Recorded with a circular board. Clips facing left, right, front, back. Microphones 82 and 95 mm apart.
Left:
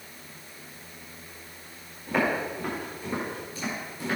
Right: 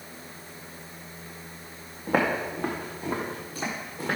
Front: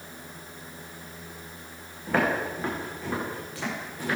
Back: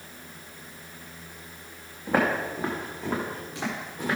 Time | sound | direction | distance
2.1 | footsteps | 105° right | 3.5 m